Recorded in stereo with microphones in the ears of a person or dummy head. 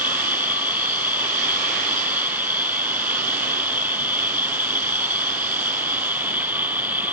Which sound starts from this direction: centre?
An insect, at 0.0 s.